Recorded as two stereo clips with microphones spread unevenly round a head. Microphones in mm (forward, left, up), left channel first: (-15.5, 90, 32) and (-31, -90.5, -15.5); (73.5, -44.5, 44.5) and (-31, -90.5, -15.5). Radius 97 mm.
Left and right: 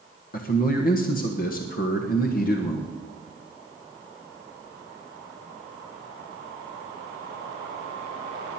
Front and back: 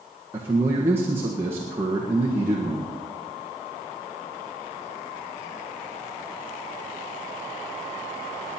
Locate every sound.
0.3 s a man speaking: 130° left, 1.4 m